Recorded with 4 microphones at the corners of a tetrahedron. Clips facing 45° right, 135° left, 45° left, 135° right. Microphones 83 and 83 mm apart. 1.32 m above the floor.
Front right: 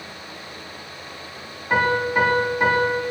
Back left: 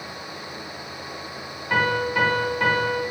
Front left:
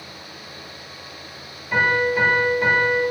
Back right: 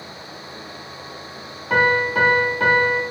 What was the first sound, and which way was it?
A piano, 120° right.